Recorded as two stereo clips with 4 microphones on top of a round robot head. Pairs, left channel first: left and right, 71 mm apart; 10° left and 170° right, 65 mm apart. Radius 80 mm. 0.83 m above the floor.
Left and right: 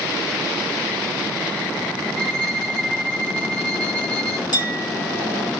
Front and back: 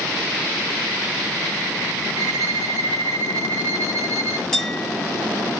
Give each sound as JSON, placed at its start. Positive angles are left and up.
{"t": 2.2, "sound": "a violin", "azimuth_deg": 165, "distance_m": 1.6}
{"t": 4.5, "sound": "a clink", "azimuth_deg": 90, "distance_m": 1.8}